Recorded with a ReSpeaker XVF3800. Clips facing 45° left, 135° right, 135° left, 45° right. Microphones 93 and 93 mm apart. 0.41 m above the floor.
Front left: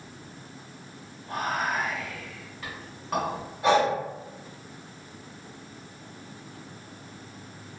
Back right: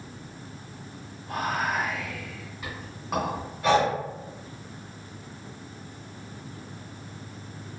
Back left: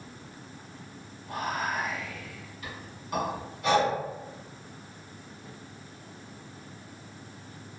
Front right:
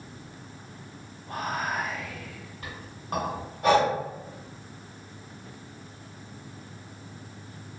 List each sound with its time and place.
1.3 s whispering: 60° right, 1.4 m
3.6 s breathing: 20° right, 0.7 m